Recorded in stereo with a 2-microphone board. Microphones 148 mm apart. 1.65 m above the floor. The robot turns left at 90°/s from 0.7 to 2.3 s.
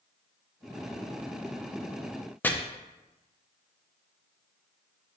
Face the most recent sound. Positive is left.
turn(degrees=10)  # may be behind; listen again after turning